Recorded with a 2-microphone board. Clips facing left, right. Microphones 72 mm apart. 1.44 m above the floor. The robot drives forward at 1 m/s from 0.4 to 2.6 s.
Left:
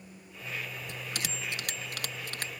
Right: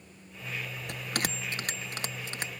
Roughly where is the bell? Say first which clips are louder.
Right 8 dB; right.